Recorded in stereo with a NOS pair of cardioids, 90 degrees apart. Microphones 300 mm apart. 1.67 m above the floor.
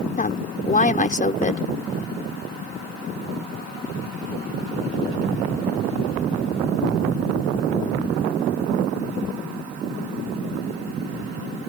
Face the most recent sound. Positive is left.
turn(degrees=25)